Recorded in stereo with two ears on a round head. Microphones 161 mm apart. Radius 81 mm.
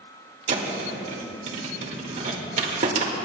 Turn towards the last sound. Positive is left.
turn(degrees=-40)  # may be behind; listen again after turning